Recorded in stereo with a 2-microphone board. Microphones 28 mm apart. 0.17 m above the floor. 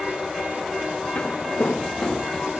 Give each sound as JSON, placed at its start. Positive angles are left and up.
{"t": 1.1, "sound": "footsteps", "side_deg": 60, "distance_m": 1.4}